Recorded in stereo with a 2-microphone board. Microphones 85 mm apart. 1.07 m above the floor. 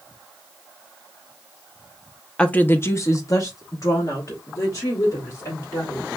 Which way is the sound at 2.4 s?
10° left (ahead or behind).